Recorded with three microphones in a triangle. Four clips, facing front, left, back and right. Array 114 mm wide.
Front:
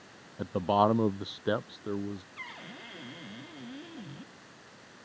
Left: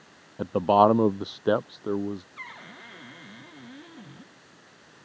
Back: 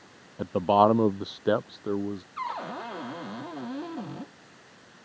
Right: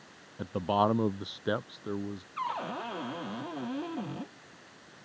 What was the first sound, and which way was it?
A man speaking, 115° left.